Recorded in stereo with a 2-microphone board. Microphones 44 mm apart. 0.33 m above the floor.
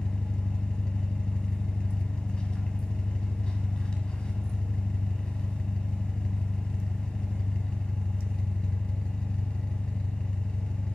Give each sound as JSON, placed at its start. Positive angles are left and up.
{"t": 0.0, "sound": "an engine running", "side_deg": 20, "distance_m": 0.7}